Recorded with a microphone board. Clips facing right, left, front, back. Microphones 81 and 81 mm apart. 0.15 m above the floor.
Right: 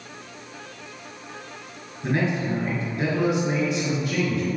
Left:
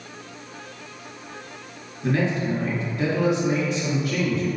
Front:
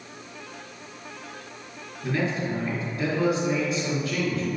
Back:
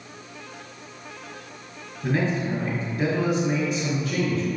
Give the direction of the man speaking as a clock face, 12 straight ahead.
4 o'clock.